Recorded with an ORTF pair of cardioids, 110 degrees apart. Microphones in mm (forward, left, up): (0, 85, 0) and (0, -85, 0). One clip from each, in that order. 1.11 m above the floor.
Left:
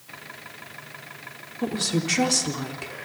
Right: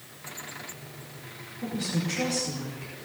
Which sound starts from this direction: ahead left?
A woman speaking, at 1.6 s.